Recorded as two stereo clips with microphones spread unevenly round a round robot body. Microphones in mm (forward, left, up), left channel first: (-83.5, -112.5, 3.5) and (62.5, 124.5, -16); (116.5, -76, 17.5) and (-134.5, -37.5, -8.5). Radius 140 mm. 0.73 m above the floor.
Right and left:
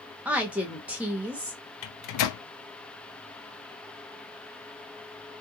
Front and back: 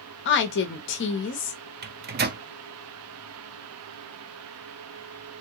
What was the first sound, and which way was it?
A woman speaking, 20° right.